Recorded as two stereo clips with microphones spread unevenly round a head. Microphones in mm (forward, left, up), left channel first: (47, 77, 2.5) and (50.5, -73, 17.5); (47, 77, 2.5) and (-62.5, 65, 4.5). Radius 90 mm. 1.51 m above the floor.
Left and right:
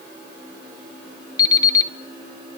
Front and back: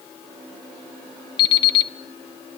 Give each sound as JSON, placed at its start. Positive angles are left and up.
{"t": 1.4, "sound": "an alarm clock", "azimuth_deg": 30, "distance_m": 1.3}